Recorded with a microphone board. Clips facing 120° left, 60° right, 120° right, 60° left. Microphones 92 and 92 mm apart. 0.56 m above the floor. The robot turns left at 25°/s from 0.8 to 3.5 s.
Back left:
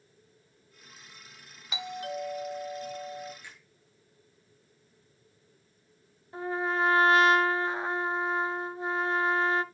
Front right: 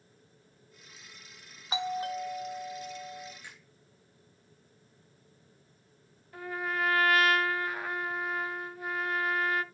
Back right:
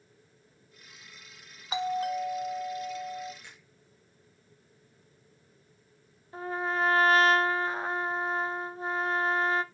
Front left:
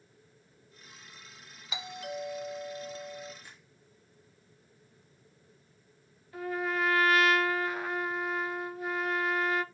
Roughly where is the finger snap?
Behind right.